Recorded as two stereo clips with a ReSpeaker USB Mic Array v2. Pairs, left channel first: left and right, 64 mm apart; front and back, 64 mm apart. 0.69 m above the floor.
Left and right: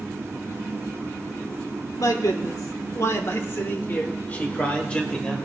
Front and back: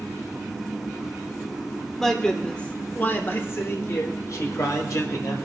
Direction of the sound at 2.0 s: 85° left.